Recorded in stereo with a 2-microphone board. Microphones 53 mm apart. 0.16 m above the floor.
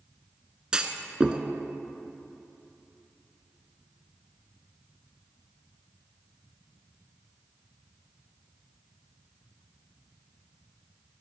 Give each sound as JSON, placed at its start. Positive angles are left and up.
{"t": 0.7, "sound": "a clunk", "side_deg": -20, "distance_m": 0.7}